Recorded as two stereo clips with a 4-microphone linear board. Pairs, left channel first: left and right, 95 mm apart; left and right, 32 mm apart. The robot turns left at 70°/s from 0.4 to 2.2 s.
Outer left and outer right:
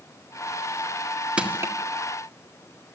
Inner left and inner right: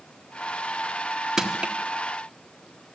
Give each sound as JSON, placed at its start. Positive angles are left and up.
{"t": 1.4, "sound": "crushing", "side_deg": -10, "distance_m": 2.0}